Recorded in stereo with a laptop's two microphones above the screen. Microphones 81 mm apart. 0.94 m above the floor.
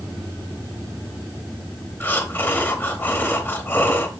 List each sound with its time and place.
2.0 s breathing: 25° left (ahead or behind), 1.0 m